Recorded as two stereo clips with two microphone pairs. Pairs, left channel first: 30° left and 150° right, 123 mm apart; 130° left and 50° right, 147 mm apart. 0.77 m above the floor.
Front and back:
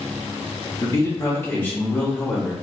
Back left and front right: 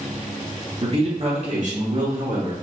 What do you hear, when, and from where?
0.8 s a man speaking: 25° right, 1.3 m; by 2.5 s 55° right, 2 m